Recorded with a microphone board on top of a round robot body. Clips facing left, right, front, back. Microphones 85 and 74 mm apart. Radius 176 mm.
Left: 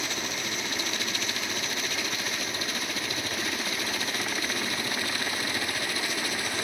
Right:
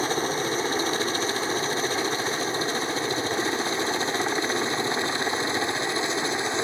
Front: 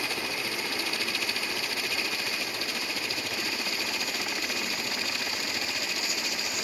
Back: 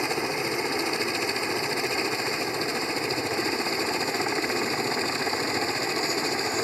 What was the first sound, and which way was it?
A helicopter, 125° right.